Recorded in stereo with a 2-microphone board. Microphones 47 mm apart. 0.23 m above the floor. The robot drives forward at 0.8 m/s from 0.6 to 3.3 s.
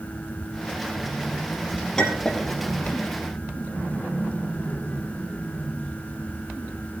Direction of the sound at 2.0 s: 15° left (ahead or behind).